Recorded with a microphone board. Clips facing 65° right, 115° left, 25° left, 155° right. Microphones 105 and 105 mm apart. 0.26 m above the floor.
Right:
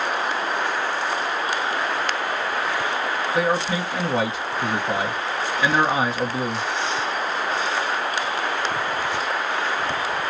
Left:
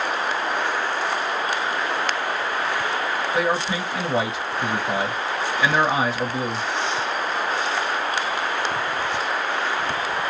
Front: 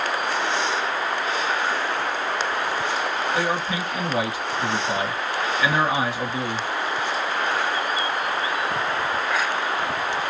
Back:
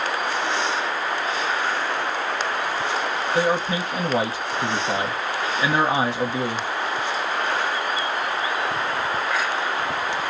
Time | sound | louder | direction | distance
3.4 | a man speaking | right 2 dB, back 3 dB | 160° right | 1.0 m